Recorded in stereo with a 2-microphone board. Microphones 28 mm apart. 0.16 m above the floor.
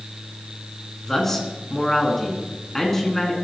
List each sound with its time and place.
1.0 s a man speaking: 10° left (ahead or behind), 2.0 m